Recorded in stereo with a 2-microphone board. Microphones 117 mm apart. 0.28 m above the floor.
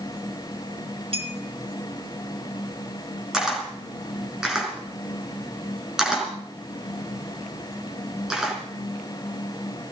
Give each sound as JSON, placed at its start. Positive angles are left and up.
{"t": 1.1, "sound": "a clink", "side_deg": -55, "distance_m": 3.0}
{"t": 3.3, "sound": "a camera shutter", "side_deg": -5, "distance_m": 4.5}